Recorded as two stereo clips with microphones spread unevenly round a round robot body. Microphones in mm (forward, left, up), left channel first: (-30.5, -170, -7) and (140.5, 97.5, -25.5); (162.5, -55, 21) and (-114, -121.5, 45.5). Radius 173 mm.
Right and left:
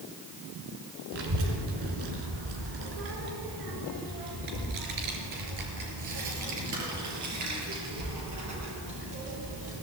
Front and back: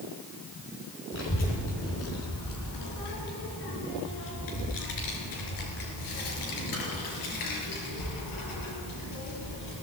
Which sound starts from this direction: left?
A child speaking, at 1.1 s.